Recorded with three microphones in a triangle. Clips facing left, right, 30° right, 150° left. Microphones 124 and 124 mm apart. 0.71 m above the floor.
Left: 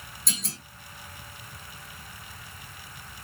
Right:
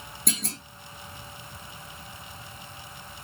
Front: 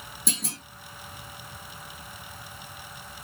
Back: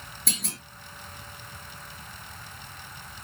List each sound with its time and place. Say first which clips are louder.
0.3 s a clunk: right 5 dB, front 2 dB; 105° right, 1.6 m